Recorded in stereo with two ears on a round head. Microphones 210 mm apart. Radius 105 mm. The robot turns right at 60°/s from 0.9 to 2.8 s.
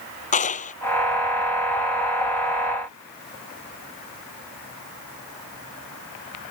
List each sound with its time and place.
0.3 s a clap: 35° left (ahead or behind)